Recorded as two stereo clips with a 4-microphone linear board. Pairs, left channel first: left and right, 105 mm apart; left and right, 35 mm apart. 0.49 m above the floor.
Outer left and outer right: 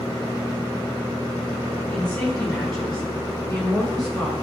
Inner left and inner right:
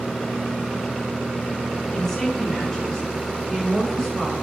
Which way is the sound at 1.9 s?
10° left (ahead or behind).